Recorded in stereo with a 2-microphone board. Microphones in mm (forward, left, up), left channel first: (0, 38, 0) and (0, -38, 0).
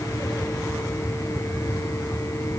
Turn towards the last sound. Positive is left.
No sound to turn to.